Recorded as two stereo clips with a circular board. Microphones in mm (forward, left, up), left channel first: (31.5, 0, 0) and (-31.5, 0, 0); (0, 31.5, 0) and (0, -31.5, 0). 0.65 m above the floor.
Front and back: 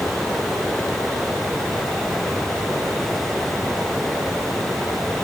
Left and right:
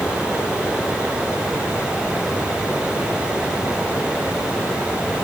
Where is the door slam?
No door slam in this recording.